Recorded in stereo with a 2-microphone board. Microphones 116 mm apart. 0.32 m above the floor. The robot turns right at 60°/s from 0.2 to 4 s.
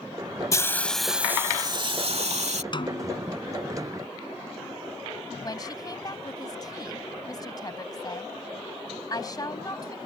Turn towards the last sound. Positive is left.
turn(degrees=35)  # may be behind; listen again after turning